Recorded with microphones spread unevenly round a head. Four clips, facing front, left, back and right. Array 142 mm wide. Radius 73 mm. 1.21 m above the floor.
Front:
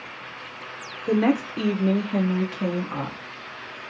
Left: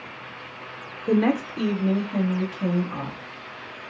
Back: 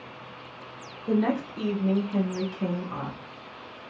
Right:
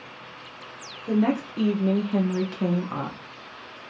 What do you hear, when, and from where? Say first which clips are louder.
1.1 s a woman speaking: left 2 dB, front 4 dB; 40° left, 0.5 m; by 3.2 s 65° right, 1.1 m